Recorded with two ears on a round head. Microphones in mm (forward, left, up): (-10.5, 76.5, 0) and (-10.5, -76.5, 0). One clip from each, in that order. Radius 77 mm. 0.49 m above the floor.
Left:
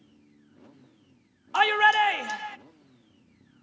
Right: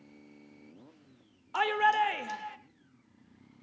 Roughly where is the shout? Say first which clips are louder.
Left 6 dB; left.